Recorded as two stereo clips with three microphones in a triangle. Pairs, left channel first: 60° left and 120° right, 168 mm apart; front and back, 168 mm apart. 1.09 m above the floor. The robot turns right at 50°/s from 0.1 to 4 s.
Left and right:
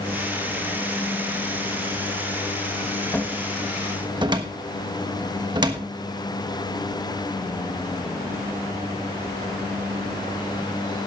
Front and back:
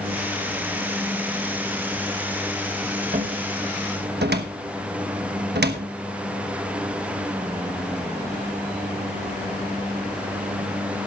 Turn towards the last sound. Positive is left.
turn(degrees=180)